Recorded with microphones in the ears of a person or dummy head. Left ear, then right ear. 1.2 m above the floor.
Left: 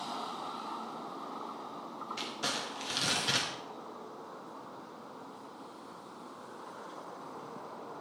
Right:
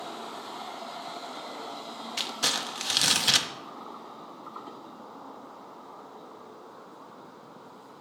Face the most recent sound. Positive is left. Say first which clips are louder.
# right 8 dB
turn(degrees=-30)  # may be behind; listen again after turning